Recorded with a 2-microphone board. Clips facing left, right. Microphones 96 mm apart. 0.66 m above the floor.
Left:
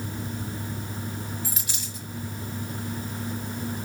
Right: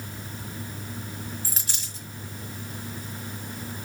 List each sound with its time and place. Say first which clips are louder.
1.4 s a dropped coin: left 3 dB; 40° right (ahead or behind), 3 m